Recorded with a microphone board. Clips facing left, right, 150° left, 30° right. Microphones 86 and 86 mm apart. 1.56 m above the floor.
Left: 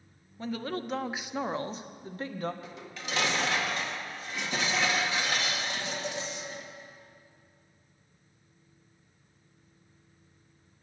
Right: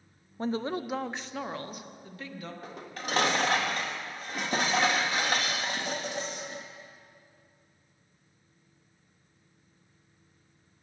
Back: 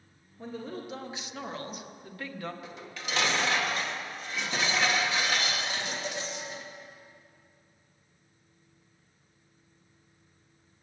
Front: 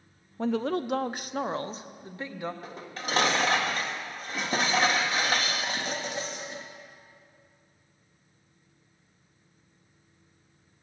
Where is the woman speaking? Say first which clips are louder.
Right 3 dB, front 11 dB; 40° right, 0.5 m; by 2.5 s 40° left, 1.2 m.